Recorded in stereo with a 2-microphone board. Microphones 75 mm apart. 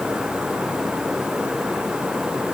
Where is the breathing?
I don't hear breathing.